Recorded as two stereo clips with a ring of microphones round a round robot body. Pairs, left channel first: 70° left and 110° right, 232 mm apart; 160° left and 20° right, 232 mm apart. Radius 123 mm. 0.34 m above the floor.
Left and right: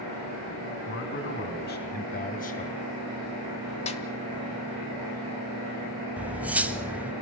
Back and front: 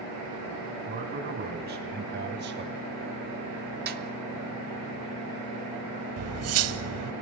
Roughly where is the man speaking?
Ahead left.